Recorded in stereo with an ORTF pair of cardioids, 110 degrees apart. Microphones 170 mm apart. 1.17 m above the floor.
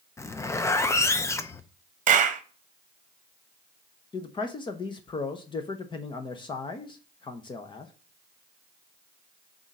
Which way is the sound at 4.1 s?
30° left.